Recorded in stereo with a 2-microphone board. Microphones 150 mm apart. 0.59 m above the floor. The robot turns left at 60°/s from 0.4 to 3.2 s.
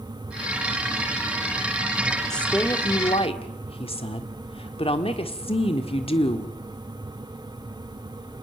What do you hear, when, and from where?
2.3 s a woman speaking: 175° left, 1.7 m; by 6.5 s 120° left, 1.7 m